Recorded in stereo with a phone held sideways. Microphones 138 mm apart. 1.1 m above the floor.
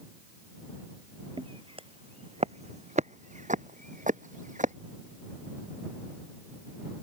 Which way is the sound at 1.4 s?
40° right (ahead or behind).